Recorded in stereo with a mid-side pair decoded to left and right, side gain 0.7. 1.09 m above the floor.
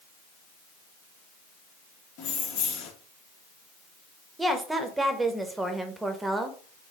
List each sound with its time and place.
2.2 s keys jangling: 60° left, 1.4 m
4.4 s a woman speaking: 10° right, 0.9 m